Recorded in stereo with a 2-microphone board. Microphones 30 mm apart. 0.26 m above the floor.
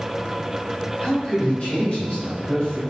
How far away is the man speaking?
About 1.9 m.